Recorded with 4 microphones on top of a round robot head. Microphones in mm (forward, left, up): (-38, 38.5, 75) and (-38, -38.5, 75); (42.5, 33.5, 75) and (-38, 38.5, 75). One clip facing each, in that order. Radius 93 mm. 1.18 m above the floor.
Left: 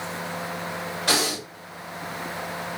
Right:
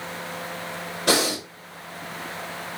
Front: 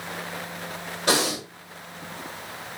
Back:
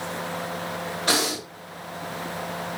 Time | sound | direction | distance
1.1 | breathing | 60° right | 1.8 m